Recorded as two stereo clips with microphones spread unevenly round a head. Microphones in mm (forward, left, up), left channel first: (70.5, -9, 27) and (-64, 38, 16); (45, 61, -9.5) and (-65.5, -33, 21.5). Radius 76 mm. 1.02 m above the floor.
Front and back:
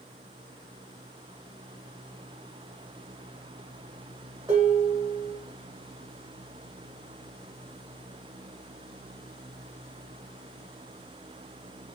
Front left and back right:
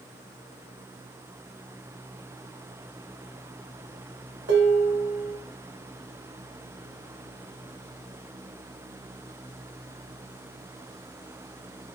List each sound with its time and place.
4.5 s dishes clattering: 125° right, 1.4 m